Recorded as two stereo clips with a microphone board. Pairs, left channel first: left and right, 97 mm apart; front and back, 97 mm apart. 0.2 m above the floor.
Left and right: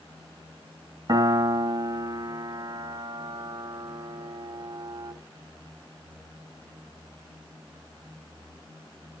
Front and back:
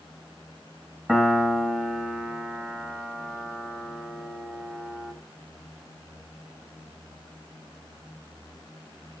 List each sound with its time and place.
1.1 s a piano: 110° right, 1.3 m